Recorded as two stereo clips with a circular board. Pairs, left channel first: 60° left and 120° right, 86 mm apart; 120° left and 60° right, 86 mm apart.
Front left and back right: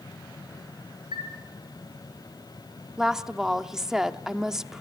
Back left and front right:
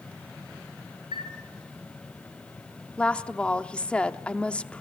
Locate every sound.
1.1 s a chime: 90° right, 10 m
3.0 s a woman speaking: 170° left, 0.8 m